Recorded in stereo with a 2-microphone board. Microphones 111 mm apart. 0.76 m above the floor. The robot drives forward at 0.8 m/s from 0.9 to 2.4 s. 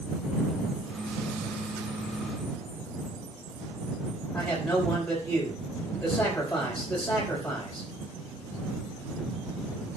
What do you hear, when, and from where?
4.3 s a man speaking: 10° left (ahead or behind), 4.5 m